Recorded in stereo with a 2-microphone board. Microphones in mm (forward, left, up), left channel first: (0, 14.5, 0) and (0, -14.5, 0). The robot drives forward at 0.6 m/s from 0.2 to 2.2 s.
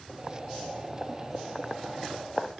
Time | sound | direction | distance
0.1 | boiling | 15° left (ahead or behind) | 1.8 m